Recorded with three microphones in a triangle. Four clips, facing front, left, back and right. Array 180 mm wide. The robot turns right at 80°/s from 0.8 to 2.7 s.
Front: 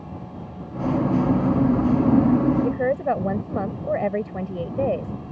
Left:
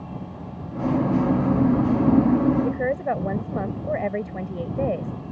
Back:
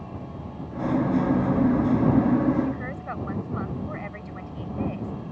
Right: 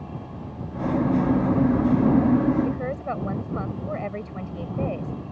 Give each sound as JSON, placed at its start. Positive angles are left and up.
{"t": 2.6, "sound": "a woman speaking", "azimuth_deg": 15}